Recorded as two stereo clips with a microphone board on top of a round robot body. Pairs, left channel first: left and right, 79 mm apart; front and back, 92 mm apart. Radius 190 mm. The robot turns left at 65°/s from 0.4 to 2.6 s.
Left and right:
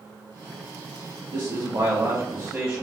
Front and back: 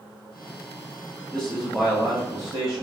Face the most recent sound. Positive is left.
turn(degrees=-155)